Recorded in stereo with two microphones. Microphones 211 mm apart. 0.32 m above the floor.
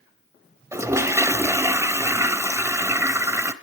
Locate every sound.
0.7 s a toilet flushing: 10° right (ahead or behind), 1.1 m